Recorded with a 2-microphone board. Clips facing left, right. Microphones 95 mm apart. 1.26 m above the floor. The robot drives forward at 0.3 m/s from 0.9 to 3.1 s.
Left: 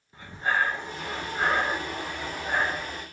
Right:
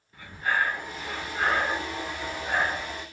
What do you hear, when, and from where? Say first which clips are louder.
0.1 s breathing: left 1 dB; 25° left (ahead or behind), 0.6 m; by 3.0 s 15° left (ahead or behind), 1.1 m